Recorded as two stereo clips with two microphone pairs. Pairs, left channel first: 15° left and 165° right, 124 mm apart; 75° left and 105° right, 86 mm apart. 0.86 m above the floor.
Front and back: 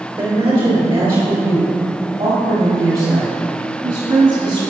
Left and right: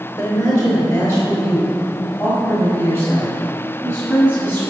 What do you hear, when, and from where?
0.2 s a woman speaking: 145° left, 3.5 m; by 4.7 s 150° left, 7 m